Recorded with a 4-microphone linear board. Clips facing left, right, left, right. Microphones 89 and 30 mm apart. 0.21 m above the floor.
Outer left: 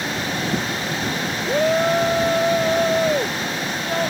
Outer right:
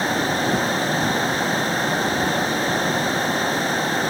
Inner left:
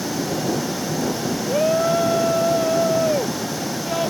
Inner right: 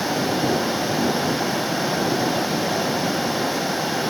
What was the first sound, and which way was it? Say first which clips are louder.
A shout: outer left 4 dB, inner left 5 dB; 75° left (ahead or behind).